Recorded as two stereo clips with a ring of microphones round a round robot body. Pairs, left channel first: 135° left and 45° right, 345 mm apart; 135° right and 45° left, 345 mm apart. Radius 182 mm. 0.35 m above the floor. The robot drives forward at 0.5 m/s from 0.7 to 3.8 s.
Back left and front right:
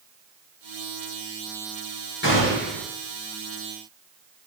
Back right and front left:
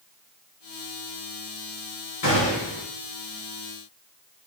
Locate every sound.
2.2 s a gunshot: 165° right, 6.5 m